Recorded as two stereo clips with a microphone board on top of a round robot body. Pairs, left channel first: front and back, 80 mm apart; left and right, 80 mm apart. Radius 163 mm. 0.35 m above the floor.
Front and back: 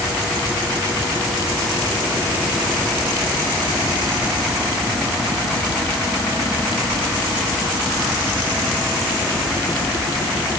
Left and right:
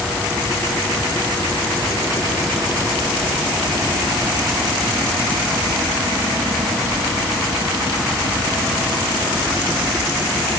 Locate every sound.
Only background noise.